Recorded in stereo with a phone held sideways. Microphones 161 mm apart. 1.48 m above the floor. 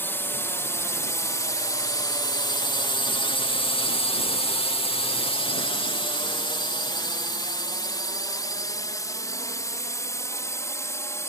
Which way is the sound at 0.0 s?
15° left (ahead or behind).